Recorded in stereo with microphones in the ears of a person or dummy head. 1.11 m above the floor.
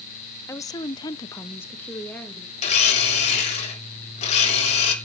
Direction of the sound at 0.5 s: 15° left (ahead or behind).